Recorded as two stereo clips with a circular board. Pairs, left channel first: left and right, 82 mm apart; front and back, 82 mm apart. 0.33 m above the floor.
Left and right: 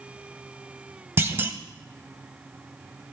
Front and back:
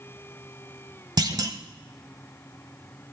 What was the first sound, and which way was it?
A clunk, 150° right.